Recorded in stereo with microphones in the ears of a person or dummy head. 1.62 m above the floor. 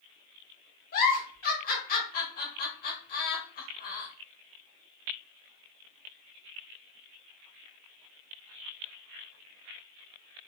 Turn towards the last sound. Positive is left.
turn(degrees=50)  # may be behind; listen again after turning